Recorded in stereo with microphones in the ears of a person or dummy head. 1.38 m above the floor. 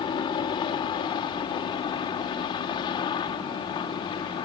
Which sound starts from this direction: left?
A helicopter, at 0.0 s.